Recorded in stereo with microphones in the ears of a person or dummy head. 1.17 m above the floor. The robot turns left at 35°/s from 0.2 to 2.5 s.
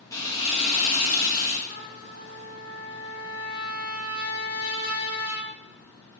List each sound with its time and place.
0.1 s frying: 165° left, 0.7 m; by 1.6 s 115° left, 0.7 m
1.7 s a trumpet: 55° left (ahead or behind), 1.0 m; by 5.5 s 85° left, 1.0 m